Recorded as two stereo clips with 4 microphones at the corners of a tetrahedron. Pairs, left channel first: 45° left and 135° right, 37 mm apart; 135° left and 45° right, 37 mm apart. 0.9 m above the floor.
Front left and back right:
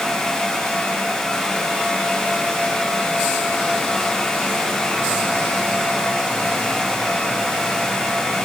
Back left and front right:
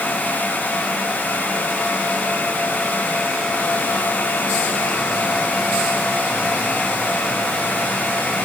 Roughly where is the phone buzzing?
No phone buzzing in this recording.